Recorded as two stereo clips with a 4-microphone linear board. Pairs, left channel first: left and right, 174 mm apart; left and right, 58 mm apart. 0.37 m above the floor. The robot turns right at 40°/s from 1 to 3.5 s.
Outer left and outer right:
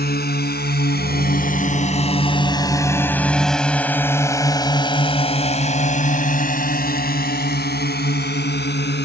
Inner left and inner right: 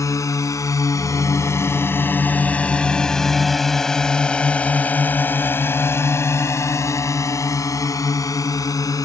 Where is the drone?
60° left (ahead or behind); by 9.1 s 70° left (ahead or behind).